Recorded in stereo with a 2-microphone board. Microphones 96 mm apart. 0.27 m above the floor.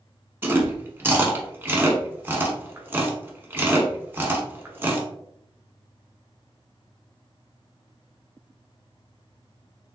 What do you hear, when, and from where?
0.4 s chewing: 25° right (ahead or behind), 0.7 m